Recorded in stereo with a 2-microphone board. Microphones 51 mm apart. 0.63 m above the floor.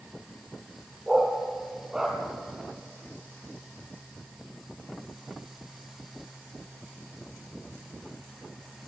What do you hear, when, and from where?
1.1 s a dog barking: 15° right (ahead or behind), 4 m